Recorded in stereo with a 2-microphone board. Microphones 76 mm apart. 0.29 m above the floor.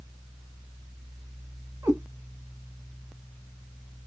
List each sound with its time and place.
1.8 s a cat meowing: 45° right (ahead or behind), 1.3 m